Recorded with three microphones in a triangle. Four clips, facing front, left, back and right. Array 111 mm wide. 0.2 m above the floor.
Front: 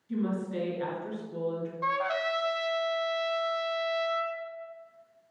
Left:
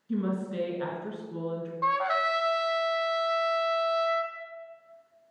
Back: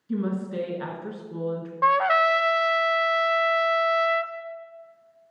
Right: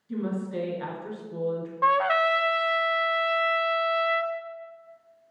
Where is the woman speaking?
160° left, 3 m.